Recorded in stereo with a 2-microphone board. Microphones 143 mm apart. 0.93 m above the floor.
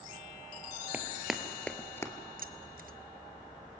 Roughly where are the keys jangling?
Right.